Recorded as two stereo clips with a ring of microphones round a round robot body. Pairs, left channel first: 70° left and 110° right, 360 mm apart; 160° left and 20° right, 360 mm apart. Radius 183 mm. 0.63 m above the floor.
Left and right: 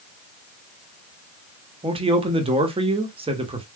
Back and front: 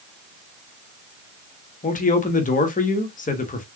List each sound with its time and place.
1.8 s a man speaking: 165° right, 0.9 m